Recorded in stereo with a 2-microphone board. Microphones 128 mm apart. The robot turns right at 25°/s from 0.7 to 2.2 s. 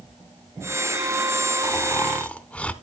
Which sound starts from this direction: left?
Snoring, at 1.6 s.